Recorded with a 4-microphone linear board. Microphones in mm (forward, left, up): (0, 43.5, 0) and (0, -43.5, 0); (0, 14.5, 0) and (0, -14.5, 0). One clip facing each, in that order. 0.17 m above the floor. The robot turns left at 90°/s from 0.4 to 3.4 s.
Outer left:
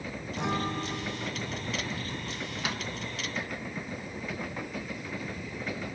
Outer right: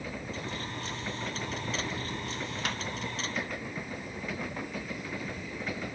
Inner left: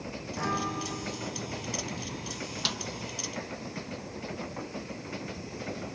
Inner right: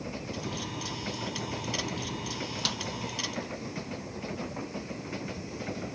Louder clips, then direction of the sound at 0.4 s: Outer left 7 dB, inner left 9 dB; 90° left.